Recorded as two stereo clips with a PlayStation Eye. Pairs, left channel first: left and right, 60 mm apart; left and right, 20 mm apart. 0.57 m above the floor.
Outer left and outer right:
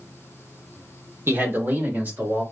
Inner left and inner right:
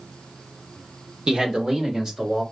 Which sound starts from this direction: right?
A man speaking, at 1.3 s.